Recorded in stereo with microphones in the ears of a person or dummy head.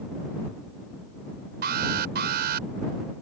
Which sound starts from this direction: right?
An alarm, at 1.6 s.